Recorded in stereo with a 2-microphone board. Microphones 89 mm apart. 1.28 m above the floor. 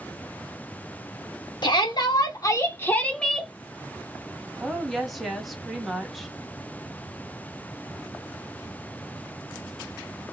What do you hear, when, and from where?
1.6 s a shout: 60° left (ahead or behind), 1.3 m; by 3.5 s 5° right (ahead or behind), 0.8 m
4.6 s a woman speaking: centre (ahead or behind), 1.1 m